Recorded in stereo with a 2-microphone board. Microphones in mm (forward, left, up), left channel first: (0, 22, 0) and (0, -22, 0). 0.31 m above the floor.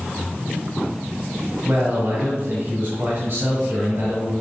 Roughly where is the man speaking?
Right.